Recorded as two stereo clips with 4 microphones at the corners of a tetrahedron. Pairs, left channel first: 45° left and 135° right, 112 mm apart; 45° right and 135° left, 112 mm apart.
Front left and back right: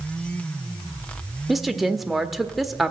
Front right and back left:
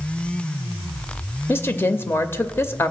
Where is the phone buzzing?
I don't hear a phone buzzing.